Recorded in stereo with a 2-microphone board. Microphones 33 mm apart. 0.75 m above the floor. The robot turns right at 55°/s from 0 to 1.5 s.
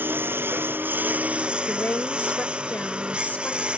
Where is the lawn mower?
115° right; by 3.8 s 30° right.